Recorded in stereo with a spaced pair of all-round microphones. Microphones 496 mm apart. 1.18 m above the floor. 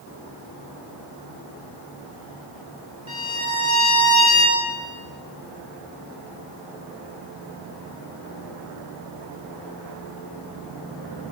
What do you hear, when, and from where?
3.1 s a violin: 10° right (ahead or behind), 1.7 m